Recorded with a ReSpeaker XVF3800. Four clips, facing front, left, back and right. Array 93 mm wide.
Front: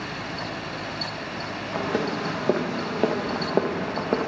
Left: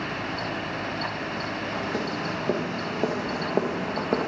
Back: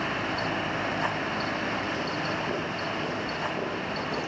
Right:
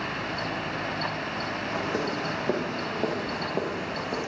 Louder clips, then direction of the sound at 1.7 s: Right 1 dB, front 4 dB; 10° right.